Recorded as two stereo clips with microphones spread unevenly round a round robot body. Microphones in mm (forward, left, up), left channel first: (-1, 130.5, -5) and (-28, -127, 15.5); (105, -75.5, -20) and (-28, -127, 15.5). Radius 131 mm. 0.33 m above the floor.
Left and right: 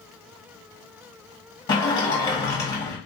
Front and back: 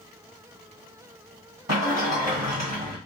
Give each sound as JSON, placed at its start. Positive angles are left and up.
{"t": 1.7, "sound": "a sliding door", "azimuth_deg": 150, "distance_m": 1.5}